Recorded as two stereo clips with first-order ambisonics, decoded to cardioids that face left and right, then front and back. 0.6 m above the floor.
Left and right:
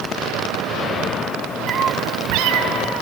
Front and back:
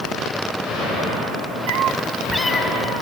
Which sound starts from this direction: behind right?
A cat meowing, at 1.7 s.